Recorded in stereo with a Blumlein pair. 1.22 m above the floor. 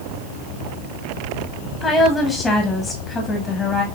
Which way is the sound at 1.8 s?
10° left.